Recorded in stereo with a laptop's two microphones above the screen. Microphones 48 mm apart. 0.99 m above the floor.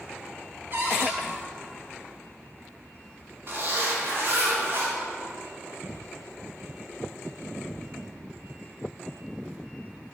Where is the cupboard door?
45° right (ahead or behind), 1.6 m.